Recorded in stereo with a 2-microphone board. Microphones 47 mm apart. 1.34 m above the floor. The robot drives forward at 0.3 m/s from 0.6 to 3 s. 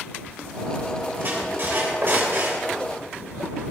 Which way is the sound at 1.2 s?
45° right (ahead or behind).